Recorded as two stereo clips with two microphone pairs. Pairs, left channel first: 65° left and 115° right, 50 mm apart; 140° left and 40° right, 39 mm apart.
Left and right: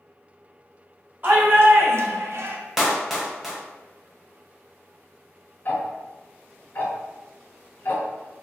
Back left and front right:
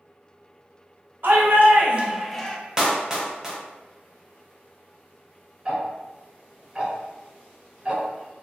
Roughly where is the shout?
Ahead right.